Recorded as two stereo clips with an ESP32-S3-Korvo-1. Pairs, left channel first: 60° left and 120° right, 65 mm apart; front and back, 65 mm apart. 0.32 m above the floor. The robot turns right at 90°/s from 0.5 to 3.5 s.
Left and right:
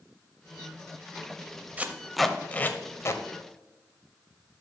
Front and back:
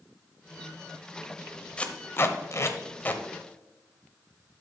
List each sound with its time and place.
1.8 s tape being pulled: 65° right, 0.7 m; by 3.2 s 65° left, 0.7 m